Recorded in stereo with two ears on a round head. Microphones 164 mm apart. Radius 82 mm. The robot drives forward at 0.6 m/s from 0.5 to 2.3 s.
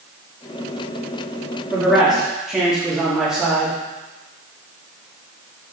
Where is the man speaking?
Centre (ahead or behind), 2.5 m; by 3.8 s 5° right (ahead or behind), 2.0 m.